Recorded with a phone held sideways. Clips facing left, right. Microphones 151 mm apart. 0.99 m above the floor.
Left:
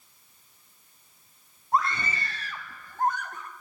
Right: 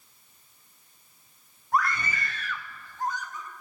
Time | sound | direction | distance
1.7 | a scream | 25° left (ahead or behind) | 3 m